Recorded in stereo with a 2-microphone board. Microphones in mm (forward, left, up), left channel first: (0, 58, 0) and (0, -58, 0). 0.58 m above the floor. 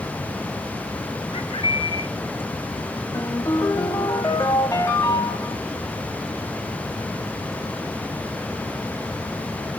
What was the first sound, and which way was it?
A bird, 55° left (ahead or behind).